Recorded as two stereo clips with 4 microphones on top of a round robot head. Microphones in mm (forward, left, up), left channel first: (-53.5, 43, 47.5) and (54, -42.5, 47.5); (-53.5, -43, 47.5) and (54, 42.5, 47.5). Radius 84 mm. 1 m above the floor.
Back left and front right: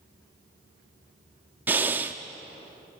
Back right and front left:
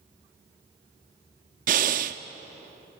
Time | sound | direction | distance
1.7 | breathing | 35° left | 0.5 m